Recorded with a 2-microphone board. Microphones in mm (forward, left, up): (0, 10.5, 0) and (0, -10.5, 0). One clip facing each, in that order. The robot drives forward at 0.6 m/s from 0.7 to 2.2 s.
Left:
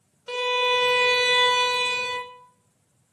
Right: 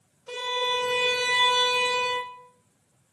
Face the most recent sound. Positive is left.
turn(degrees=25)  # may be behind; listen again after turning